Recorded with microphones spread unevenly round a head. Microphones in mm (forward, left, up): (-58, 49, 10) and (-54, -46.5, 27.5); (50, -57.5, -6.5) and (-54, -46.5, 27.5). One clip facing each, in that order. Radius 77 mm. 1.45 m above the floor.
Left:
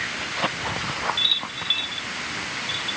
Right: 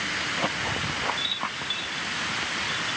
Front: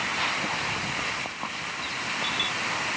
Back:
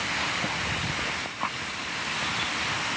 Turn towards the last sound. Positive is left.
No sound to turn to.